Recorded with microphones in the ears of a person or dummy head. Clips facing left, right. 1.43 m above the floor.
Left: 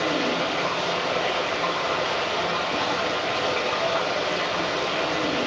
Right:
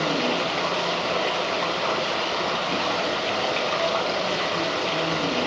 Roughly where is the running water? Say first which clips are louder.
Even; right.